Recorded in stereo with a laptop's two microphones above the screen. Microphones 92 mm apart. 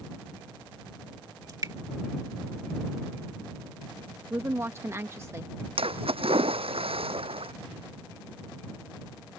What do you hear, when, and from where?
1.5 s dripping: 40° right (ahead or behind)
4.3 s a woman speaking: 30° right (ahead or behind)
5.8 s a splash: 90° right